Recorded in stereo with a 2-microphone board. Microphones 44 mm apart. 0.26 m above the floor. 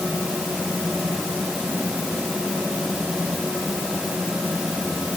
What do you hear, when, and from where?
Only background noise.